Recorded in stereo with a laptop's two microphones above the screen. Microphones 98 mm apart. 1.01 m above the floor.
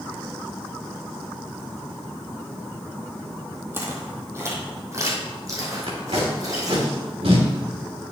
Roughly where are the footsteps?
Right.